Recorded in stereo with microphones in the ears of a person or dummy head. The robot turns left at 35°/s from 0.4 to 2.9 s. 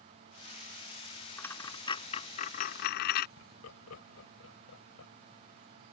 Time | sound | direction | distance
1.4 | a dropped coin | 10° left (ahead or behind) | ?
3.4 | laughter | 85° left | ?